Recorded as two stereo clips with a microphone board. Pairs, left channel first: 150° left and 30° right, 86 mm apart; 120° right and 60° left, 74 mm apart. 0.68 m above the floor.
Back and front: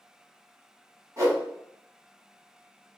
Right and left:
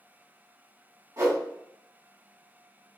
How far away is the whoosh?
About 2 m.